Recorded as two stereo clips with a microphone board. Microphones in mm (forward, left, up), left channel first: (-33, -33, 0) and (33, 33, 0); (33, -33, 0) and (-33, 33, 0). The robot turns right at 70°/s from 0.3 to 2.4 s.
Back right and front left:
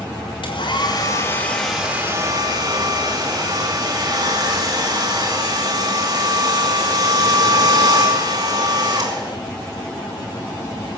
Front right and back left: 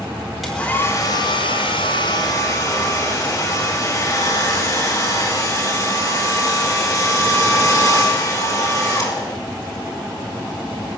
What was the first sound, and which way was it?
A hair dryer, 135° right.